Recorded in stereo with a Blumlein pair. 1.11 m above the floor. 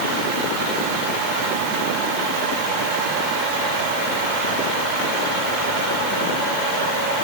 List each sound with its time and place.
Only background noise.